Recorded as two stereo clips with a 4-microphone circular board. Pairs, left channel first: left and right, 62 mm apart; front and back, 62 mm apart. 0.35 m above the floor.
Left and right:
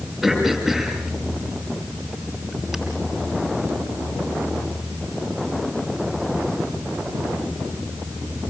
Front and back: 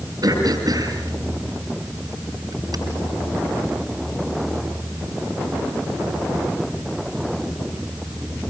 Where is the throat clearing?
170° right, 6 m.